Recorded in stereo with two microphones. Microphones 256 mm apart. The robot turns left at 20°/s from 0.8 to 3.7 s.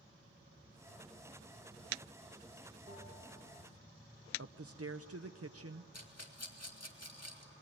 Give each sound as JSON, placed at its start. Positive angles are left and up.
{"t": 2.9, "sound": "a bell", "side_deg": -25, "distance_m": 2.5}
{"t": 4.4, "sound": "a man speaking", "side_deg": -65, "distance_m": 0.7}
{"t": 5.9, "sound": "a rattle", "side_deg": 75, "distance_m": 2.0}